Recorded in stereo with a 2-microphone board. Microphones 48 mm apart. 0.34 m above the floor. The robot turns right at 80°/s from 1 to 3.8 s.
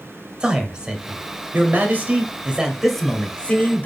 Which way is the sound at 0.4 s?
150° right.